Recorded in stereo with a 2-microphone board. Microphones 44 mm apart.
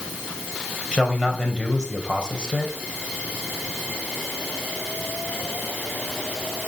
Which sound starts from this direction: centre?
A man speaking, at 0.9 s.